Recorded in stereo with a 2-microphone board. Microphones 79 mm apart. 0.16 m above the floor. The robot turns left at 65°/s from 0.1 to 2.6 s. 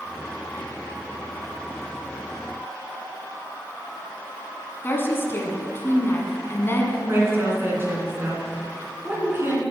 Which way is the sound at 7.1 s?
30° right (ahead or behind).